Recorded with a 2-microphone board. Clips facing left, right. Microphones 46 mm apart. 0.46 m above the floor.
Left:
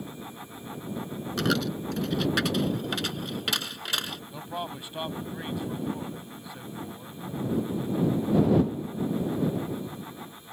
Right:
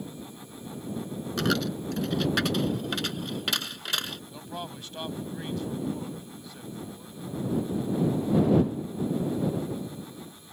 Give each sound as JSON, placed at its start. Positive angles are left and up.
{"t": 1.4, "sound": "a dropped coin", "side_deg": 0}
{"t": 4.3, "sound": "a man speaking", "side_deg": 15}